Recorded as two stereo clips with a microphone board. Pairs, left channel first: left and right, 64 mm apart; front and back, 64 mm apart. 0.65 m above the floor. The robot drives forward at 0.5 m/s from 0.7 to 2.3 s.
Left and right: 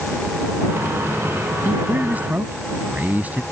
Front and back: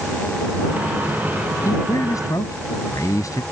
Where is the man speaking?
25° right.